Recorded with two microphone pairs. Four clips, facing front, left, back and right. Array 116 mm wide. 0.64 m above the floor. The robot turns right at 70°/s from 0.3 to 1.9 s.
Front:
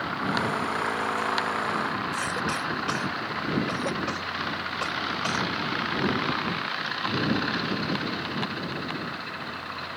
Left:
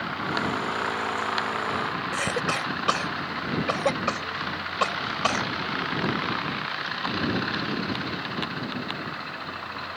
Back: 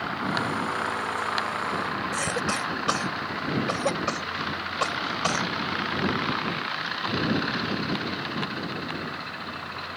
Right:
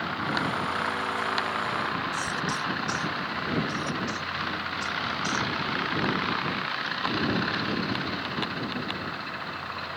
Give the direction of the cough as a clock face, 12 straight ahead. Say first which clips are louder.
Left 3 dB, back 1 dB; 8 o'clock.